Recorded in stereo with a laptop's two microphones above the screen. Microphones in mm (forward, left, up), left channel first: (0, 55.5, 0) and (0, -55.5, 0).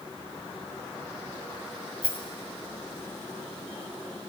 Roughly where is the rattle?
Left.